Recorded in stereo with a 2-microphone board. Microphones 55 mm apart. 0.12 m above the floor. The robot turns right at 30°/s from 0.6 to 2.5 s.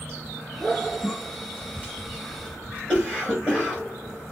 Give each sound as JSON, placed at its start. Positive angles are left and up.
{"t": 1.0, "sound": "a cough", "side_deg": 30, "distance_m": 1.7}